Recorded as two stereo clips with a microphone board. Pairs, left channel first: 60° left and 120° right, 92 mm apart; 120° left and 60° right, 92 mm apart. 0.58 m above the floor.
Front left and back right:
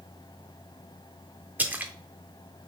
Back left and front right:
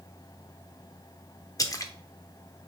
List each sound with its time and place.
1.6 s a splash: 170° left, 0.5 m